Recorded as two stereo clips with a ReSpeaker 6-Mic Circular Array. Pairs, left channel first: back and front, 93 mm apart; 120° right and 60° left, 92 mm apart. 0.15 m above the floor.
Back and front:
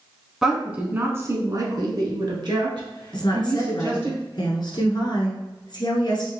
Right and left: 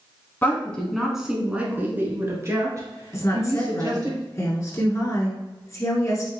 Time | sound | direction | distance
0.4 | a woman speaking | 80° right | 1.1 m
3.1 | a woman speaking | 165° right | 1.7 m